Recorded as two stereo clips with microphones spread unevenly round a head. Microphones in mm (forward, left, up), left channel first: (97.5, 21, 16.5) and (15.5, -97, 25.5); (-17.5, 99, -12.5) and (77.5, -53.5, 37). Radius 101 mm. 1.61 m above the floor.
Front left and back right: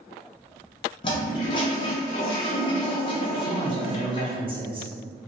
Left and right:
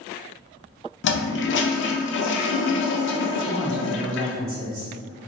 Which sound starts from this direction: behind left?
A toilet flushing, at 1.0 s.